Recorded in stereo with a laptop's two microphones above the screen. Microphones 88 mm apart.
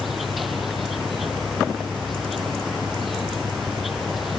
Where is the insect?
Centre (ahead or behind).